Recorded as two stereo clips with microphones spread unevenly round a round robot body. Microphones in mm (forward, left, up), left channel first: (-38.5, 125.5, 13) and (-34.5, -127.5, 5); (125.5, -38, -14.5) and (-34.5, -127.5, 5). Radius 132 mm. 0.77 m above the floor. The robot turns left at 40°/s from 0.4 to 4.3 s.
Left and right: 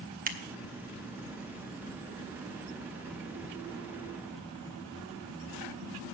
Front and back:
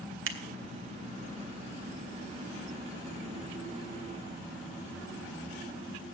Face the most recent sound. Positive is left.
turn(degrees=55)